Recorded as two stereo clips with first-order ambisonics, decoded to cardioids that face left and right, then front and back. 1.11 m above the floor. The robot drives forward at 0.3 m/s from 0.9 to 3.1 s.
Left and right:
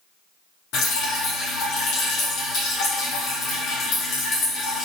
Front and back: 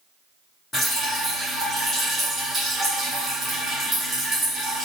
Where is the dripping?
70° left, 0.9 m; by 4.8 s 120° left, 1.0 m.